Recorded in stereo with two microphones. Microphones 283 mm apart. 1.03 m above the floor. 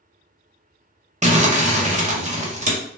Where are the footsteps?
I don't hear footsteps.